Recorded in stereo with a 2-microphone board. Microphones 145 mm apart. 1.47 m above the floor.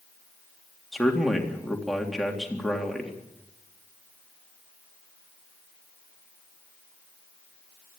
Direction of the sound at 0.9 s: Centre (ahead or behind).